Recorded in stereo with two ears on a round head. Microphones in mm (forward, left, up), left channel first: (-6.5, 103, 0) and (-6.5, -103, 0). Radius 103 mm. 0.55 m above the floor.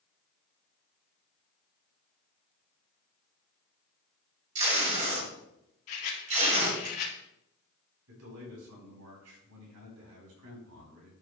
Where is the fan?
No fan in this recording.